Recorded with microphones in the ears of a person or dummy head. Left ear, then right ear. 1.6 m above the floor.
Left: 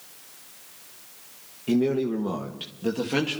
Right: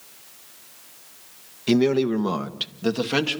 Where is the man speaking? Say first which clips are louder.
Right 4 dB; 65° right (ahead or behind), 1.5 m; by 3.4 s 25° right (ahead or behind), 2 m.